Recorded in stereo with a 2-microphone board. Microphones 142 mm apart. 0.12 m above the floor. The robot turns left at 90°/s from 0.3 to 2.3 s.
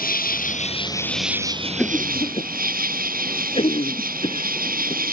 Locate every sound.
0.0 s an insect: 80° left; by 5.1 s 100° right
1.8 s a cough: 5° left (ahead or behind); by 5.1 s 40° left (ahead or behind)